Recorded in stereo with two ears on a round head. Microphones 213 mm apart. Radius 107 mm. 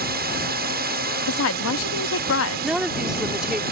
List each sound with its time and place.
0.0 s a drone: 40° right (ahead or behind)
1.3 s a woman speaking: 60° left (ahead or behind)
2.6 s a woman speaking: 5° right (ahead or behind)